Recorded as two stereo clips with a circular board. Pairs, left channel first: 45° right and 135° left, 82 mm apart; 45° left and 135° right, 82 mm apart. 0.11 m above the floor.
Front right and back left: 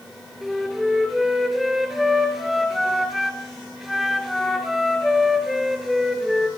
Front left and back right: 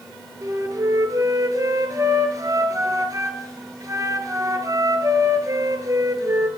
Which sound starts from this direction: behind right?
A flute, at 0.4 s.